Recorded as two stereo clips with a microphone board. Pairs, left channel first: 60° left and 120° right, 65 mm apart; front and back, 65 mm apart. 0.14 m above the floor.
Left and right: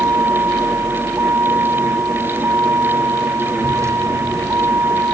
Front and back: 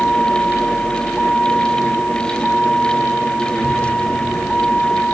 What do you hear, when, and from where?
0.0 s a vehicle: 75° right